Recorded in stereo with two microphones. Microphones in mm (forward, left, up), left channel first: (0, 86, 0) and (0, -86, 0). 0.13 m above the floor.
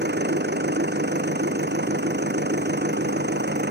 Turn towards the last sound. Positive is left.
turn(degrees=-80)